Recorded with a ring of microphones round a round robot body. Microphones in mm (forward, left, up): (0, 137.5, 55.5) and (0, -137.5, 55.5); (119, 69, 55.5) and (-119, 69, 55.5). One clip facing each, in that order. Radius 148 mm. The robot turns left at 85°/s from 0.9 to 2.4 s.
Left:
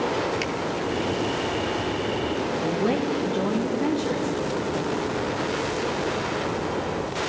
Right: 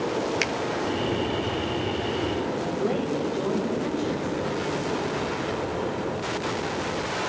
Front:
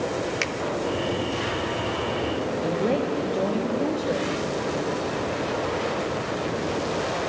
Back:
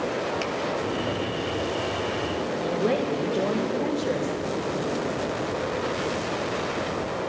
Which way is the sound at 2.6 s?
80° left.